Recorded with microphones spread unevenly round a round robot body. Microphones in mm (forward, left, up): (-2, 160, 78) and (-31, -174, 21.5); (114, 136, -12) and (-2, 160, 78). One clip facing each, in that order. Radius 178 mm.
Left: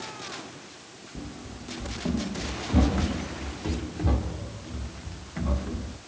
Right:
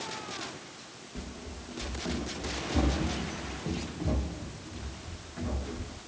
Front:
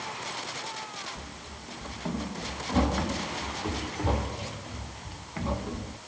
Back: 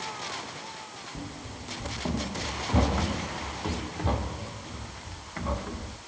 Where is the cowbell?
I don't hear a cowbell.